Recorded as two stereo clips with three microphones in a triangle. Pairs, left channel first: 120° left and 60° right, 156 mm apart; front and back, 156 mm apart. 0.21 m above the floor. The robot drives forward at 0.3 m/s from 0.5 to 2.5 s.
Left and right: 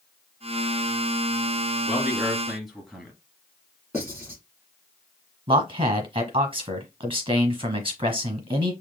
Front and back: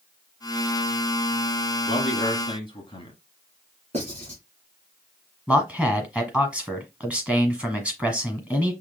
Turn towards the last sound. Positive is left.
turn(degrees=-100)